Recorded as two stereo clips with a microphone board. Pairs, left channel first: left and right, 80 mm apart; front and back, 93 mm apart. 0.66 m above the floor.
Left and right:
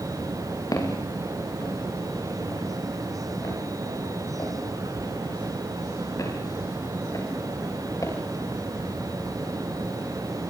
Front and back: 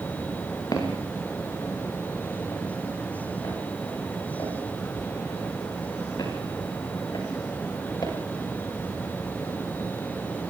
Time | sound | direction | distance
0.7 | footsteps | 45° left | 9.5 m